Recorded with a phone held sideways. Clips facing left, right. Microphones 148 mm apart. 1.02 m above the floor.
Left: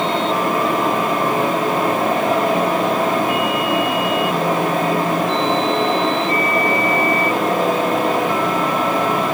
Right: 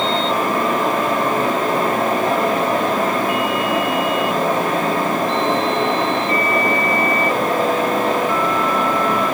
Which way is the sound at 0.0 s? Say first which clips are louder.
Even; 15° left (ahead or behind).